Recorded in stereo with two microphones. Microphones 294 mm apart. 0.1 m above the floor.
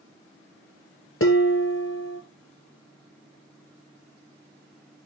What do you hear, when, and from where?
1.2 s dishes clattering: 50° left (ahead or behind), 1.1 m